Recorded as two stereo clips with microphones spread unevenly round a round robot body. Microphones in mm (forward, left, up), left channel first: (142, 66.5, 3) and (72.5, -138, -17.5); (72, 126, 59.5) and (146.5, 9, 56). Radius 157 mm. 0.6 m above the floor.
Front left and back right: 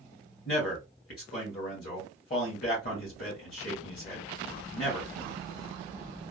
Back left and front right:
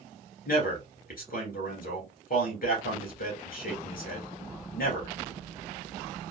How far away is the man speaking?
About 2 m.